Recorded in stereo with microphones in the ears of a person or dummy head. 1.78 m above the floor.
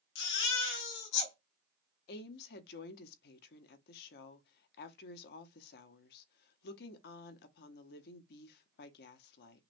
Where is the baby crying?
70° left (ahead or behind), 2.5 m.